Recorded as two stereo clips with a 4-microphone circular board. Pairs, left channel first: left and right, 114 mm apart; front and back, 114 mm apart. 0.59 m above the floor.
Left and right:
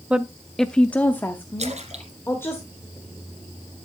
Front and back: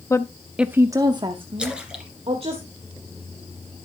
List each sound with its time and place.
0.1 s a woman speaking: 25° right, 0.6 m; by 2.6 s 155° left, 1.7 m
1.6 s a splash: 100° right, 1.9 m